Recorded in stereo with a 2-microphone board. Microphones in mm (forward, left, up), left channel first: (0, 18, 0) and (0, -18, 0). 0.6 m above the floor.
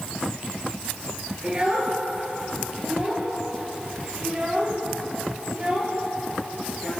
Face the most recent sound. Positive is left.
turn(degrees=-30)  # may be behind; listen again after turning